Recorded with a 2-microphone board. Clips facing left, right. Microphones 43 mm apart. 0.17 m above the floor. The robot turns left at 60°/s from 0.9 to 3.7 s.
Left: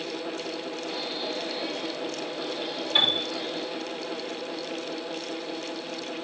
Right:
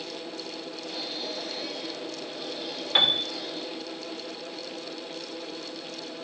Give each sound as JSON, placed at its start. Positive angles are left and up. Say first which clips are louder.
{"t": 3.0, "sound": "a piano", "louder": "right 1 dB", "side_deg": -55, "distance_m": 3.0}